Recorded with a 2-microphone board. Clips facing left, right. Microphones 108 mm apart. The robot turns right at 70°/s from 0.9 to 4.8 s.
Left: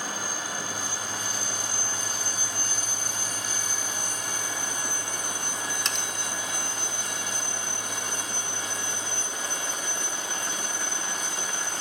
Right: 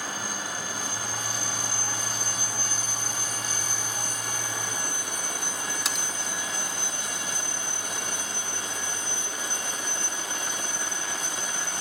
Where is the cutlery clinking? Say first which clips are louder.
Even; 5° right (ahead or behind).